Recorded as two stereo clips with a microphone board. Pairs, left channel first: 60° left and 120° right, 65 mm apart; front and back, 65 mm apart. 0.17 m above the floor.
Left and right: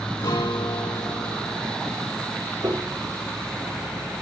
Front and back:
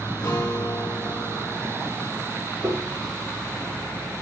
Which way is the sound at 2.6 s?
135° right.